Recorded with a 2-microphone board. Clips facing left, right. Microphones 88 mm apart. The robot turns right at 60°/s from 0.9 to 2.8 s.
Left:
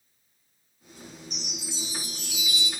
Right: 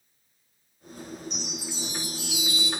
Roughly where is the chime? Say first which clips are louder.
Right 3 dB; behind left.